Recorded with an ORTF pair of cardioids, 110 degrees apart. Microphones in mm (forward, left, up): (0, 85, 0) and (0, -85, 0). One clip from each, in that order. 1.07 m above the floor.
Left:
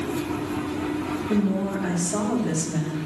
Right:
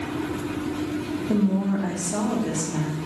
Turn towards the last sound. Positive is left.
turn(degrees=-5)